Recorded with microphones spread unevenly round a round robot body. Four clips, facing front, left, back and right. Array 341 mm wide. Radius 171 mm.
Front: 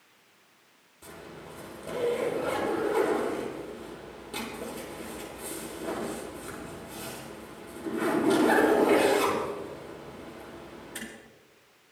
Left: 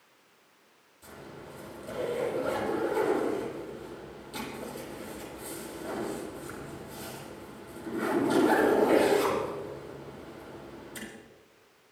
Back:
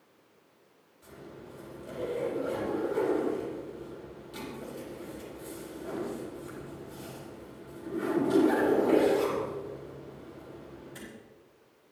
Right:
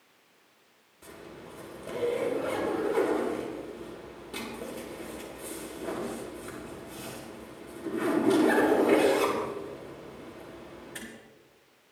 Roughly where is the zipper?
Ahead right.